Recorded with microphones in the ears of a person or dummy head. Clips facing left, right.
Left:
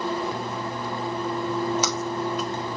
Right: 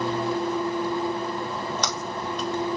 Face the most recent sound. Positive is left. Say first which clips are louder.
# left 4 dB
turn(degrees=5)  # may be behind; listen again after turning